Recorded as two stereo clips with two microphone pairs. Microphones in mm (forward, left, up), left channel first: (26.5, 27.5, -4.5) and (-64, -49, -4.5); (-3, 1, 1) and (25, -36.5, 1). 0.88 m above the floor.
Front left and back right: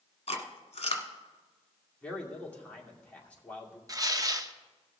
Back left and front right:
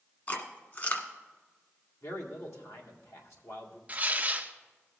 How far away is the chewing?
About 1.4 m.